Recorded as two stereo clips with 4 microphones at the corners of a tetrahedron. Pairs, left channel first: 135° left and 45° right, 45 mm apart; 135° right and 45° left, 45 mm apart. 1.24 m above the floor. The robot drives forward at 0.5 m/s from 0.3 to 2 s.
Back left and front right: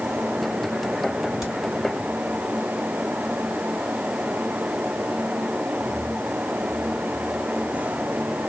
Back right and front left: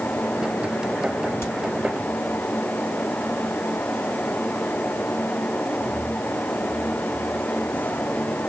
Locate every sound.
1.4 s a crack: 125° right, 2.5 m; by 1.5 s 130° right, 2.5 m